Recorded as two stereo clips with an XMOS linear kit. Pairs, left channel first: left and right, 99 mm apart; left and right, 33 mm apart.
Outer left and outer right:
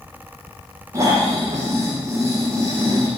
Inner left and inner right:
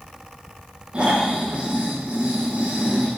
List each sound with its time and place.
0.9 s snoring: 30° right (ahead or behind), 8 m